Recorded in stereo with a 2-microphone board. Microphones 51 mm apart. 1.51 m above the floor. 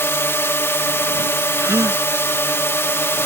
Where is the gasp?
85° right.